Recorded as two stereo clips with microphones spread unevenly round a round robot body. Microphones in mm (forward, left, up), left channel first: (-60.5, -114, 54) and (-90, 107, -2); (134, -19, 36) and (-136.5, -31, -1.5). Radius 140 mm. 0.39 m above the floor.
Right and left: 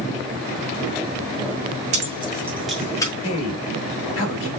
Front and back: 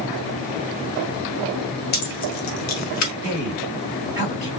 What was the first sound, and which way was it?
Keys jangling, 60° left.